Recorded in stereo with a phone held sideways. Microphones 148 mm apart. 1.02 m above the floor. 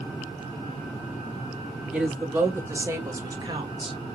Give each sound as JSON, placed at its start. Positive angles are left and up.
{"t": 1.9, "sound": "a woman speaking", "side_deg": -10, "distance_m": 2.0}